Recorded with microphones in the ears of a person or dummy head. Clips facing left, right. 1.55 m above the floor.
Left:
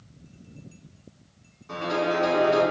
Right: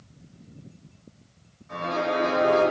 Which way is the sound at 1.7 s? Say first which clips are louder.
Left 1 dB; 75° left (ahead or behind).